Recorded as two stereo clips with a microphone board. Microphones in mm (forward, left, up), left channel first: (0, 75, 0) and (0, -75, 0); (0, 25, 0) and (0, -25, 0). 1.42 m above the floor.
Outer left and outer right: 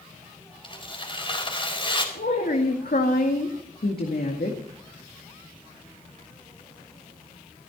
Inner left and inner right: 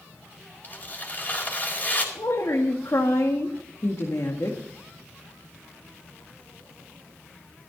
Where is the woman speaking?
80° left, 1.9 m.